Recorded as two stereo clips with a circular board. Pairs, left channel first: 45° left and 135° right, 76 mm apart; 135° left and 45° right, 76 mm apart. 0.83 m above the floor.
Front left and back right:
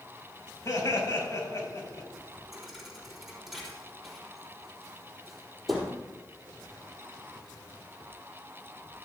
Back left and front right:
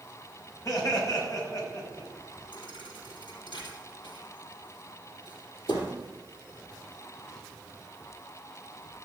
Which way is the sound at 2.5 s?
135° left.